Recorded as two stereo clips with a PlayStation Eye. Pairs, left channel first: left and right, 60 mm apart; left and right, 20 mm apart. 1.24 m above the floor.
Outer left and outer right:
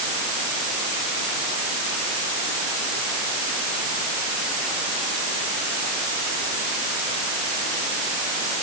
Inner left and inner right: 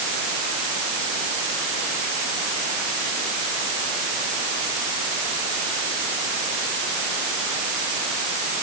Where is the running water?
No running water in this recording.